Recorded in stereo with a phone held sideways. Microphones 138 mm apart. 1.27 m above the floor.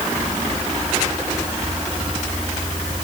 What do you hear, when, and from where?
Only background noise.